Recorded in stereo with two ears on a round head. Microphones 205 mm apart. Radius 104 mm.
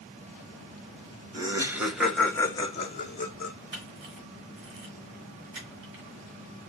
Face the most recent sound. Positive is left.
turn(degrees=-50)  # may be behind; listen again after turning